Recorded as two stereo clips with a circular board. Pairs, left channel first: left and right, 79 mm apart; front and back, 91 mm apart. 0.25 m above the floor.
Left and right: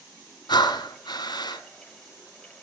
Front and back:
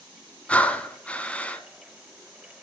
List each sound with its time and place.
0.5 s breathing: 75° left, 0.7 m